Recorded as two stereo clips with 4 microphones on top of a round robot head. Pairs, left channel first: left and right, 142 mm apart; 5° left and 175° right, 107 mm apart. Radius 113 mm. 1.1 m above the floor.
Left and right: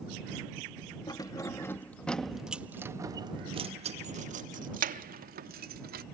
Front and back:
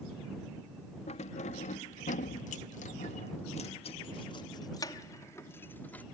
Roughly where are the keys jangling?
Ahead left.